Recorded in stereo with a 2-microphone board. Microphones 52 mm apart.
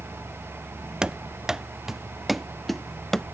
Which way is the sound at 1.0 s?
15° right (ahead or behind).